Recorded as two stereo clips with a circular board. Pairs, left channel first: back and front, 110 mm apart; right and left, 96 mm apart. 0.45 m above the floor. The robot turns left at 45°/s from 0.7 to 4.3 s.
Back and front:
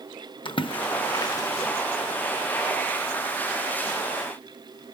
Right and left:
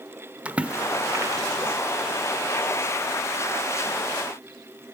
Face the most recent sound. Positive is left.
turn(degrees=0)